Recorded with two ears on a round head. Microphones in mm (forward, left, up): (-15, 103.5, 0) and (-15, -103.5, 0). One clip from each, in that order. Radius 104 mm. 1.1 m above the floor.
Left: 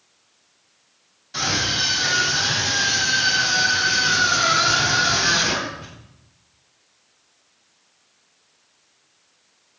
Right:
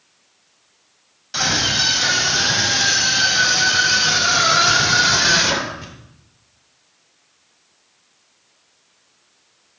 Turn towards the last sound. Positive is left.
turn(degrees=-45)  # may be behind; listen again after turning